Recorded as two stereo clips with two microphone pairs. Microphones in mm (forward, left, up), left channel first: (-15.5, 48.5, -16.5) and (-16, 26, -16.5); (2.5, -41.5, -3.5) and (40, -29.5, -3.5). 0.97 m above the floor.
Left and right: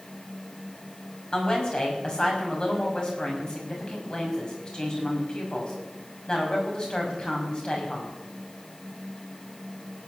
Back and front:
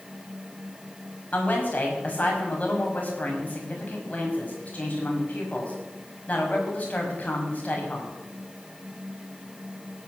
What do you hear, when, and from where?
1.3 s a woman speaking: 145° left, 5.5 m